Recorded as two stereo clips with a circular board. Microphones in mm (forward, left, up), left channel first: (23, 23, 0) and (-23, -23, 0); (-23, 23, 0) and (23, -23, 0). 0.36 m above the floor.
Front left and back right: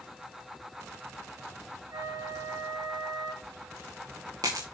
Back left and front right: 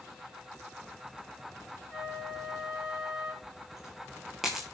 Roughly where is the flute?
Behind right.